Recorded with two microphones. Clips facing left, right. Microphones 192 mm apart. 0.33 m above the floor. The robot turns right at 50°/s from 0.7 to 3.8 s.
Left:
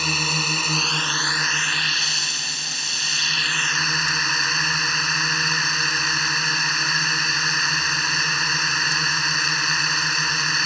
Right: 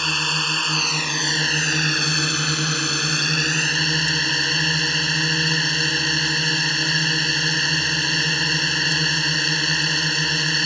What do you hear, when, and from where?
0.0 s a drone: 175° left; by 10.7 s 30° right